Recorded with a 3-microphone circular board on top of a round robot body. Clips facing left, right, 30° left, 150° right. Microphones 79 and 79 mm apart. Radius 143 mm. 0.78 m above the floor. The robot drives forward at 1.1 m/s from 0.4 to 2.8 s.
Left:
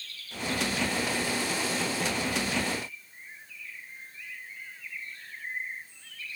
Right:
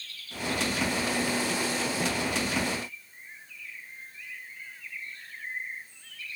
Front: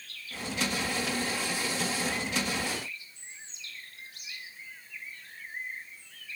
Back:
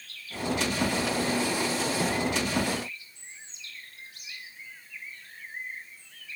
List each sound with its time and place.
Only background noise.